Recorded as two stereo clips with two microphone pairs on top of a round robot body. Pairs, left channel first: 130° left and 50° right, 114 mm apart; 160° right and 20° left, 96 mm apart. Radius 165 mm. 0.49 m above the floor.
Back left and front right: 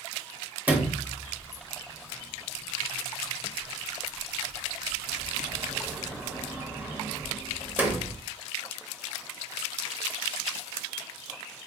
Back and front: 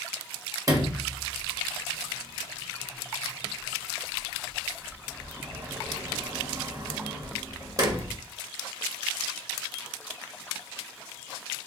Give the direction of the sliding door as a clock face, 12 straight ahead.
11 o'clock.